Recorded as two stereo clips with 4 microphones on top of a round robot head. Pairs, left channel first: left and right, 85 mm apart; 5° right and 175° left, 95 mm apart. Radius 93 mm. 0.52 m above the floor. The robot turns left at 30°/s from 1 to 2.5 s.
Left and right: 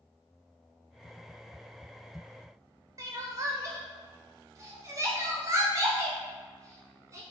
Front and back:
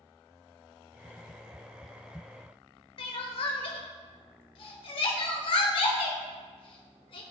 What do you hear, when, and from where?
3.0 s crying: 35° right, 1.2 m